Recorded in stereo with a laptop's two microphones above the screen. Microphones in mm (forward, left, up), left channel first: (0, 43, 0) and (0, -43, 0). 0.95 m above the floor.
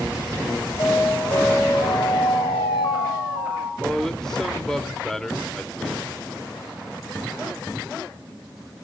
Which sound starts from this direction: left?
An alarm, at 0.8 s.